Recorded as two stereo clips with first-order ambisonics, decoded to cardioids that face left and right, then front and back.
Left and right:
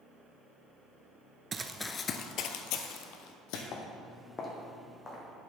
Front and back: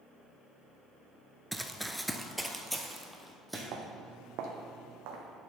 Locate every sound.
1.5 s running footsteps: 95° right, 0.5 m; by 3.6 s 90° left, 1.5 m
3.7 s footsteps: 140° left, 1.3 m; by 5.2 s 170° left, 1.9 m